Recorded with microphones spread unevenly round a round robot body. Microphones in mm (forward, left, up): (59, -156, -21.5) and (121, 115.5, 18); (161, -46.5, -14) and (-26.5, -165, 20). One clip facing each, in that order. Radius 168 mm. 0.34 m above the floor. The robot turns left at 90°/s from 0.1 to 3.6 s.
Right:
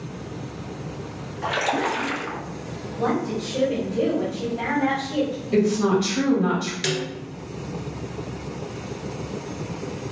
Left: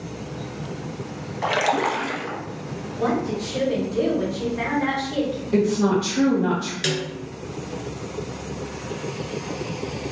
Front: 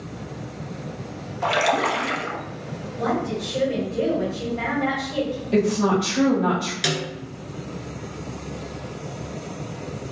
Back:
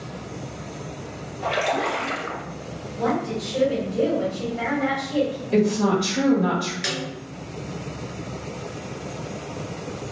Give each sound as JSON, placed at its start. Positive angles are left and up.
{"t": 1.4, "sound": "a splash", "azimuth_deg": 40, "distance_m": 0.7}
{"t": 2.9, "sound": "a woman speaking", "azimuth_deg": -165, "distance_m": 1.5}
{"t": 5.5, "sound": "a woman speaking", "azimuth_deg": -65, "distance_m": 1.2}
{"t": 6.8, "sound": "a snare drum", "azimuth_deg": -15, "distance_m": 1.1}